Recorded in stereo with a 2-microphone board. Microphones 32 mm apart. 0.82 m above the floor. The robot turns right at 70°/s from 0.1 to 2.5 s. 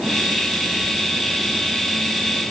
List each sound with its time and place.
Only background noise.